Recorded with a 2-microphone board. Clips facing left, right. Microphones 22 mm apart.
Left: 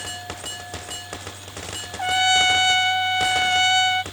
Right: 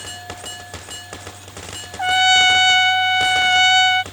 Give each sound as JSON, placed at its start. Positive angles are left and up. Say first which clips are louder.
{"t": 2.0, "sound": "a trumpet", "louder": "right 5 dB", "side_deg": -20}